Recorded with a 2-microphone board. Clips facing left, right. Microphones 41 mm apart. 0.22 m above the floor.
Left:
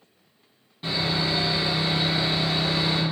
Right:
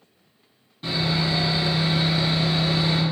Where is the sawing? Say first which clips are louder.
Right 1 dB; 10° left (ahead or behind), 1.7 m.